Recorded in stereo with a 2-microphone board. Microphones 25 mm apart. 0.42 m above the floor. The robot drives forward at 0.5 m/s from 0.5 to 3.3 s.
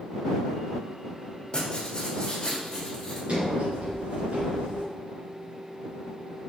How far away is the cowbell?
No cowbell in this recording.